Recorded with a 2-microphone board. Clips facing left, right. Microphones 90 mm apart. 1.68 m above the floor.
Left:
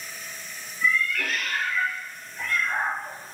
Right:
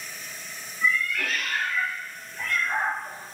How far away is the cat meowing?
About 1.8 m.